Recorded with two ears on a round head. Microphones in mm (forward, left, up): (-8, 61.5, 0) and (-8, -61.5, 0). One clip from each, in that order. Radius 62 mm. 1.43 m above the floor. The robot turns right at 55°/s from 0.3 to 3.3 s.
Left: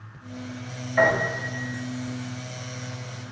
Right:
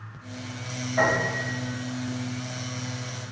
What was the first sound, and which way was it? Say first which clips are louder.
A piano: left 2 dB; 70° left.